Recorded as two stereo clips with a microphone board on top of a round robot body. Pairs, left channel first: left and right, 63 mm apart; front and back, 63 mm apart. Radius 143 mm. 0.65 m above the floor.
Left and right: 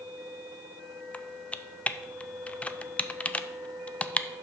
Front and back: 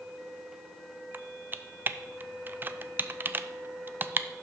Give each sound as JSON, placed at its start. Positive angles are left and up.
{"t": 1.1, "sound": "typing on a keyboard", "azimuth_deg": 145, "distance_m": 0.6}